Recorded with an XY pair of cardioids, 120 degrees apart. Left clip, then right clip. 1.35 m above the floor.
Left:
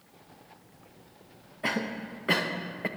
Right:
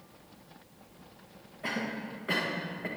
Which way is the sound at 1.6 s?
35° left.